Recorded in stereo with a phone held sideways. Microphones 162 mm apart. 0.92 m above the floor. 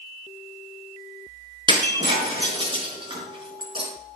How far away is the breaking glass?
About 4.5 m.